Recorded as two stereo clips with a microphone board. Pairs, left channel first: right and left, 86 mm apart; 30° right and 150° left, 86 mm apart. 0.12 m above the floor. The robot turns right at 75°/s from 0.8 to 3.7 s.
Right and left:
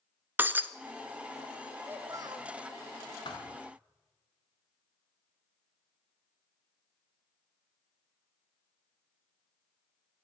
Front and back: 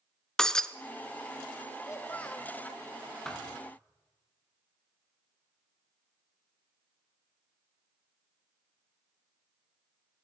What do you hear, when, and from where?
0.4 s breaking glass: 45° left, 1.0 m
1.9 s a child speaking: 20° left, 3 m; by 2.5 s 65° left, 3 m
3.2 s a thud: 115° right, 4 m; by 3.6 s 90° right, 4 m